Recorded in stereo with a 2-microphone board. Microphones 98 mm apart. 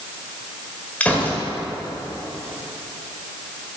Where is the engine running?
I don't hear an engine running.